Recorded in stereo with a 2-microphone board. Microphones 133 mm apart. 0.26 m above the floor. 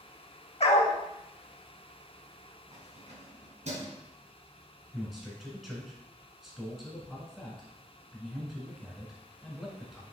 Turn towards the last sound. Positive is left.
turn(degrees=0)  # may be behind; listen again after turning